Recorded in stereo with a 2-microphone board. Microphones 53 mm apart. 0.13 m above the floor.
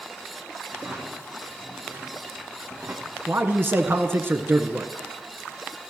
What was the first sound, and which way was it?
A drawer, 30° right (ahead or behind).